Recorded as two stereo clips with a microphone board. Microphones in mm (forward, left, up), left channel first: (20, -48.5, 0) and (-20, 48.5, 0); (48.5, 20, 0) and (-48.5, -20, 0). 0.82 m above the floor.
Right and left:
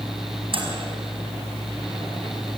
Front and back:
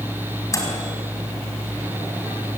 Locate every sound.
0.5 s a microwave: 80° left, 5 m